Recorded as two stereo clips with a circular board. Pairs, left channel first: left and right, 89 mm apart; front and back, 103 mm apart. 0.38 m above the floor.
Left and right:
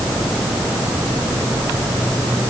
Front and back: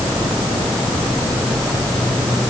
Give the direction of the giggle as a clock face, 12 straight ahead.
I don't hear a giggle.